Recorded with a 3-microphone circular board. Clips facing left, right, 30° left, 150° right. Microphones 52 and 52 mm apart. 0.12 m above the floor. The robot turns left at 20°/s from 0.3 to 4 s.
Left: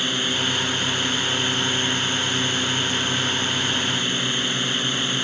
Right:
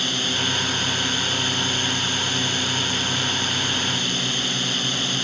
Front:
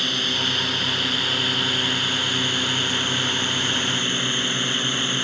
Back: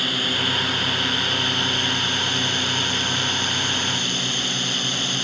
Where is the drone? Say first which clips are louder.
Left 1 dB, back 1 dB; 130° left; by 5.2 s 55° left.